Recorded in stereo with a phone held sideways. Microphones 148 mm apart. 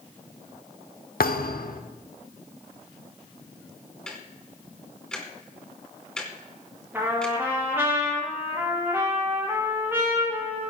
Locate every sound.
1.2 s a thud: 80° left, 1.0 m
4.1 s ticking: 5° left (ahead or behind), 2.5 m
6.9 s a trumpet: 15° right (ahead or behind), 5 m